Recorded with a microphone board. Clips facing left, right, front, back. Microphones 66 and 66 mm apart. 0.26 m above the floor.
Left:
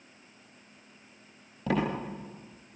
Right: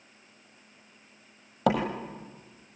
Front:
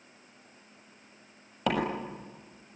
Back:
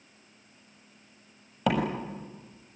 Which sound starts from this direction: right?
A door slam, at 1.7 s.